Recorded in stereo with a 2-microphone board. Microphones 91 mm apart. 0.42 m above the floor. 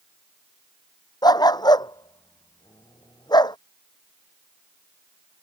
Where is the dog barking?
50° left (ahead or behind); by 3.6 s 55° left (ahead or behind).